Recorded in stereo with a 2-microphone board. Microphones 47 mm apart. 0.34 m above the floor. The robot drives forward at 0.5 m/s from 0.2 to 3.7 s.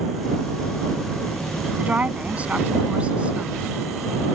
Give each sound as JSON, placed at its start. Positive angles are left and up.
{"t": 1.8, "sound": "a woman speaking", "side_deg": -30}